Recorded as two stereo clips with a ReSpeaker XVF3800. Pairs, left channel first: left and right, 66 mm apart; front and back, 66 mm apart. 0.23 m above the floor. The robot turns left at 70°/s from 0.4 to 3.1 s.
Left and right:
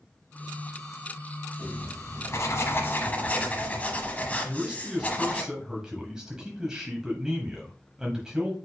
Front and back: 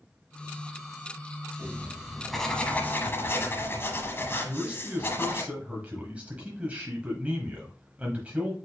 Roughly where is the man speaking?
Behind right.